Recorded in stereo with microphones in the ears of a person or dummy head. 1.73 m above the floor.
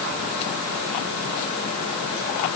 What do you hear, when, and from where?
Only background noise.